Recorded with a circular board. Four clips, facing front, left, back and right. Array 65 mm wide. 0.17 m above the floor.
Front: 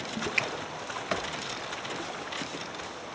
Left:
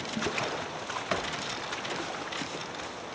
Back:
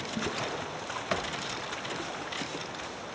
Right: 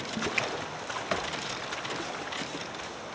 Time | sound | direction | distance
0.4 | a finger snap | 25° right | ?